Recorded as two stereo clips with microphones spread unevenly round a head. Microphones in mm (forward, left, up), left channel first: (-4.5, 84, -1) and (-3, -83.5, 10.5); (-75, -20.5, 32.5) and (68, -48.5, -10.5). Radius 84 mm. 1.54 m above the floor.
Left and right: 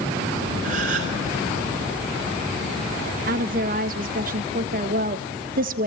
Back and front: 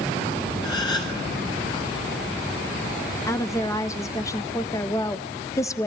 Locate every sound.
0.6 s a gasp: 135° right, 5 m
3.3 s a woman speaking: 125° right, 1.4 m